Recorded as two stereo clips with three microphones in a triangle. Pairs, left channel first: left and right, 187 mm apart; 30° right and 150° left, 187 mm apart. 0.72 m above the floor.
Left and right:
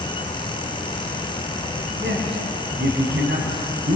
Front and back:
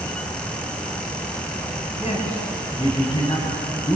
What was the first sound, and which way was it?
A man speaking, 85° right.